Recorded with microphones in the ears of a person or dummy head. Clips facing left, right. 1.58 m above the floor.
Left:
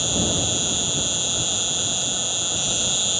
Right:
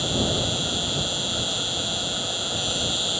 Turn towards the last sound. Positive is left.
turn(degrees=30)  # may be behind; listen again after turning